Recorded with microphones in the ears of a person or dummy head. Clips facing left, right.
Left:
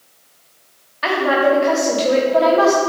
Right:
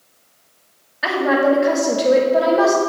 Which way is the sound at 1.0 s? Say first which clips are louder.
Even; 5° right (ahead or behind).